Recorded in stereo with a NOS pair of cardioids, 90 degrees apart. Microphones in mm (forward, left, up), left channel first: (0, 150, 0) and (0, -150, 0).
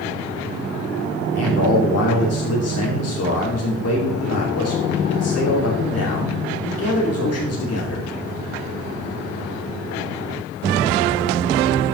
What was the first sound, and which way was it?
A man speaking, 55° left.